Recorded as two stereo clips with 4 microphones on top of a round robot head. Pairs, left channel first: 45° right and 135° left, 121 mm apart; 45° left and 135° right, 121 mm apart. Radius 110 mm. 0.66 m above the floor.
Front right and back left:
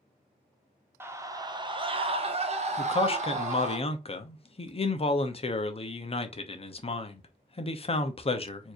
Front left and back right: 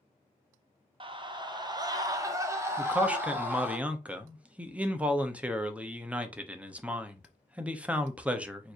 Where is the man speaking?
60° right, 0.9 m.